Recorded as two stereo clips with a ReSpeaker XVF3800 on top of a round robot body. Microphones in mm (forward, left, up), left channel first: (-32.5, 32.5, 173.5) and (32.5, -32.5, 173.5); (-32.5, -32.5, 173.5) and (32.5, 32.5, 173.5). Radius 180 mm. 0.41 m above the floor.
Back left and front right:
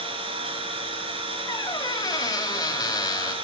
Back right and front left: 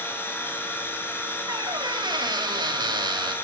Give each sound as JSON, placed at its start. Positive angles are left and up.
{"t": 0.0, "sound": "an engine running", "azimuth_deg": -65, "distance_m": 4.5}
{"t": 1.5, "sound": "a squeak", "azimuth_deg": 85, "distance_m": 2.5}